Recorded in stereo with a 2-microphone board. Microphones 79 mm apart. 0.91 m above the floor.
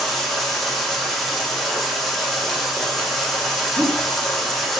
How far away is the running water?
About 1.4 m.